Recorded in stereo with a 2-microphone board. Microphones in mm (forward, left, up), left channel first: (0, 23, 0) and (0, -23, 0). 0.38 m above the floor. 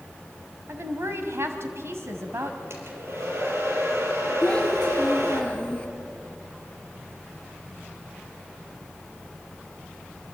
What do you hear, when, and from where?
0.7 s a woman speaking: 65° right (ahead or behind), 2.5 m
2.7 s a hair dryer: 65° right (ahead or behind), 4.5 m
4.4 s a child speaking: 25° left (ahead or behind), 4 m